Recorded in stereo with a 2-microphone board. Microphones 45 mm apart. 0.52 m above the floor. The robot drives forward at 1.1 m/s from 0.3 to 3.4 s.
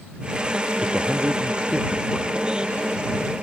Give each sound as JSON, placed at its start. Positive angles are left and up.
{"t": 0.8, "sound": "a man speaking", "side_deg": -25}